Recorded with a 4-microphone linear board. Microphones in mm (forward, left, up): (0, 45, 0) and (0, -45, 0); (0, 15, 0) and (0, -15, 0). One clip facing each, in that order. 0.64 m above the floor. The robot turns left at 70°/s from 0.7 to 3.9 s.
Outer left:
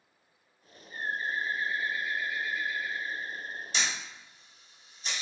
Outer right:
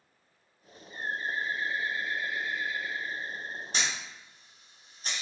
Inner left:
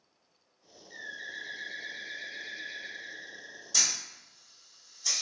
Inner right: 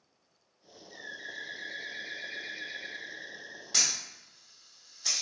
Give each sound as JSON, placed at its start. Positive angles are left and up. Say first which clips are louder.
{"t": 0.9, "sound": "a bird", "louder": "even, inner left 1 dB", "azimuth_deg": 45, "distance_m": 0.7}
{"t": 3.7, "sound": "a camera shutter", "louder": "even, even", "side_deg": -45, "distance_m": 1.1}